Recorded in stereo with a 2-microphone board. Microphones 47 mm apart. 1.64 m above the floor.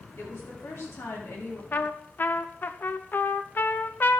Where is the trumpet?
45° left (ahead or behind), 0.6 m.